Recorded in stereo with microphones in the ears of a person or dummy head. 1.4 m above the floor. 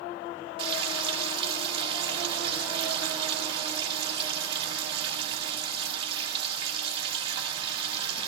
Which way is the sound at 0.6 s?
30° right (ahead or behind).